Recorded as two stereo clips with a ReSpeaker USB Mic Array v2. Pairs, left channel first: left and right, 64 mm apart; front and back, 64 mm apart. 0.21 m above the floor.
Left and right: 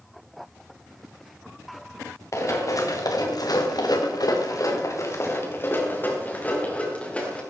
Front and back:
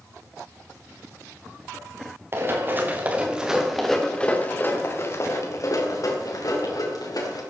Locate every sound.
2.3 s running footsteps: 130° left, 3 m; by 7.4 s 20° left, 5.5 m